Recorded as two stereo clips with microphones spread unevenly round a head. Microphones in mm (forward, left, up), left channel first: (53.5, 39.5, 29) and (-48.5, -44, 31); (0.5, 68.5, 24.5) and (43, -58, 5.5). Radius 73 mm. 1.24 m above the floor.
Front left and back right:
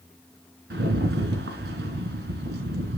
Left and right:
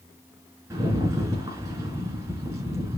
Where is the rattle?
145° right, 3 m.